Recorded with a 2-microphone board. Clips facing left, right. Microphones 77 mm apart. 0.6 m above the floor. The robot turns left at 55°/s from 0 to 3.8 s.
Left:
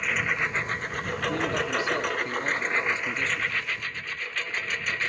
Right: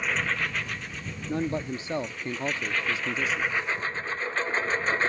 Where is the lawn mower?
5° right (ahead or behind); by 5.1 s 35° right (ahead or behind).